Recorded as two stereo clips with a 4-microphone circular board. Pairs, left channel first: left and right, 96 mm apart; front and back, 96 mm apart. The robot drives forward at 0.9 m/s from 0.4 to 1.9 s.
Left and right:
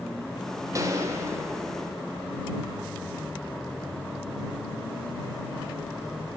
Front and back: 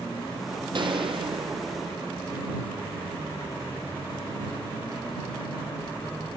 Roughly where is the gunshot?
Behind right.